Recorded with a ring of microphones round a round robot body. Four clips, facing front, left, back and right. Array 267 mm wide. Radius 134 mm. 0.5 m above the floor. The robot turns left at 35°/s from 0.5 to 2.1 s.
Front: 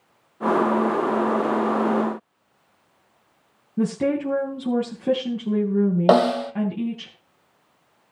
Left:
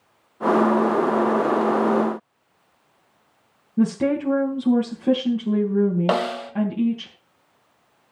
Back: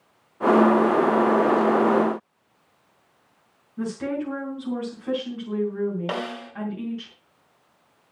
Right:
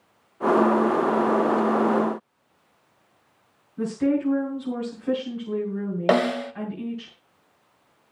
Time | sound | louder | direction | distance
3.8 | a woman speaking | left 2 dB, front 6 dB | 50° left | 4 m
6.1 | a snare drum | right 2 dB, front 14 dB | 20° right | 1.1 m